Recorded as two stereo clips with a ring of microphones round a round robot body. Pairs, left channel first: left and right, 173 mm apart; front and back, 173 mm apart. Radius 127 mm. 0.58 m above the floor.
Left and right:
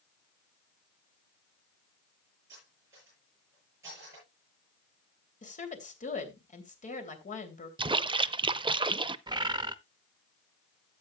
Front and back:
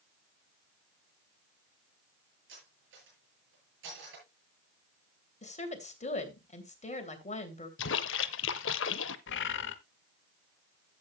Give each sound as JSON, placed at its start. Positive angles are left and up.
{"t": 2.5, "sound": "cutlery clinking", "azimuth_deg": -170, "distance_m": 8.0}
{"t": 5.4, "sound": "a woman speaking", "azimuth_deg": 45, "distance_m": 3.0}
{"t": 7.8, "sound": "a splash", "azimuth_deg": -25, "distance_m": 0.5}
{"t": 9.3, "sound": "a bird", "azimuth_deg": -25, "distance_m": 0.9}